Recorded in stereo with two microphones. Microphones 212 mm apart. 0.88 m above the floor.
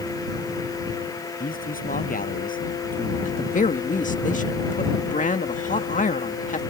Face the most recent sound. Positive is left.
turn(degrees=35)  # may be behind; listen again after turning